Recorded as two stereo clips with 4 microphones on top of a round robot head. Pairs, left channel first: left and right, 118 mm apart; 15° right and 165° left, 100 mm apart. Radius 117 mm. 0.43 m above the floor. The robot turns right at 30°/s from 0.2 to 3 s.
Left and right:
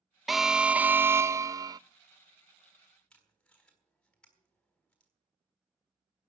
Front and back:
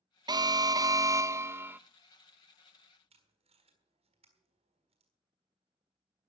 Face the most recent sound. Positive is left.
turn(degrees=170)